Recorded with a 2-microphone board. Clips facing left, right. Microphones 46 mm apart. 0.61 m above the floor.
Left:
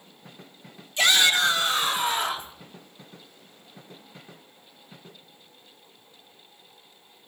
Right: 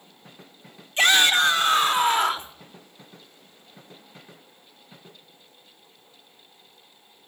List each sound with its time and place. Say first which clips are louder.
1.0 s a shout: right 2 dB; 40° right (ahead or behind), 2.0 m; by 2.5 s 60° right (ahead or behind), 2.5 m